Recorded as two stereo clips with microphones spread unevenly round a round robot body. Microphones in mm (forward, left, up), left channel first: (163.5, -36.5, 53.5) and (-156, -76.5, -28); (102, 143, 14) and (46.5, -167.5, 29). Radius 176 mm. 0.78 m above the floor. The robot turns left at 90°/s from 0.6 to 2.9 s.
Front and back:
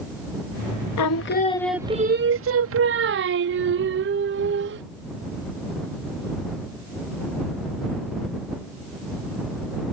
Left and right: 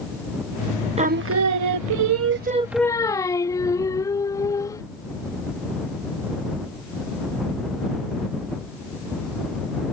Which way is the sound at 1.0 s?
30° right.